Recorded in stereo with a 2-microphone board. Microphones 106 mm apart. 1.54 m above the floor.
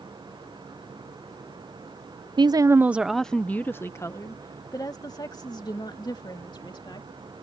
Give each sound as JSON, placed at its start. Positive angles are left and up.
{"t": 2.4, "sound": "a woman speaking", "side_deg": -50}